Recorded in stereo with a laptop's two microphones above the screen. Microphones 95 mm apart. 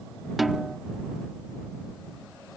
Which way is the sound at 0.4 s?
Centre (ahead or behind).